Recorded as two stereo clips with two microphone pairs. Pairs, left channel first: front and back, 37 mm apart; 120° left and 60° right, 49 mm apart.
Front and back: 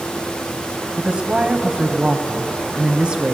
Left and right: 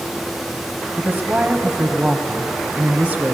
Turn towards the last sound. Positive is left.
turn(degrees=-125)